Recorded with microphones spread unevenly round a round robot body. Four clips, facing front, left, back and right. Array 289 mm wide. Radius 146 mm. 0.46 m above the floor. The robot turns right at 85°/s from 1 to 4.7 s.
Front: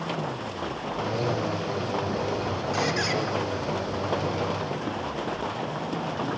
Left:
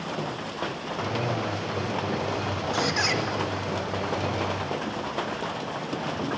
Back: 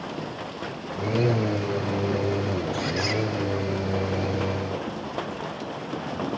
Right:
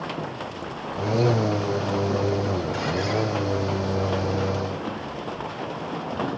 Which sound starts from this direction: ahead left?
A squeak, at 2.7 s.